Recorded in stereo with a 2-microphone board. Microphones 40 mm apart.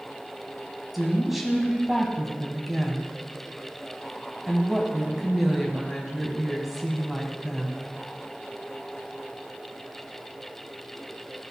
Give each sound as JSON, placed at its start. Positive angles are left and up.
{"t": 0.9, "sound": "a woman speaking", "side_deg": -5, "distance_m": 1.8}